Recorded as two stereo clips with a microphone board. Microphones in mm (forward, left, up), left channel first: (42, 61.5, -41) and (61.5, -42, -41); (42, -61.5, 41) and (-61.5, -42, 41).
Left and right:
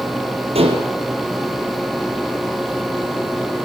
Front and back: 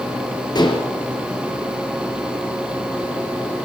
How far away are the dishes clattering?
About 3.5 m.